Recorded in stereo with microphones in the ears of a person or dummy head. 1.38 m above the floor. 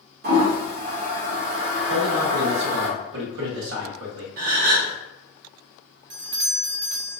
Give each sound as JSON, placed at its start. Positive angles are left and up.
{"t": 0.2, "sound": "a toilet flushing", "side_deg": -50, "distance_m": 0.8}
{"t": 1.9, "sound": "a man speaking", "side_deg": -80, "distance_m": 1.4}
{"t": 4.4, "sound": "a gasp", "side_deg": -50, "distance_m": 0.7}
{"t": 6.1, "sound": "a doorbell", "side_deg": -50, "distance_m": 0.6}